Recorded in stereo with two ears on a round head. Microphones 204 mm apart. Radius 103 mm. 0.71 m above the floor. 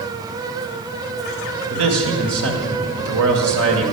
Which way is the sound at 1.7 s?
65° right (ahead or behind).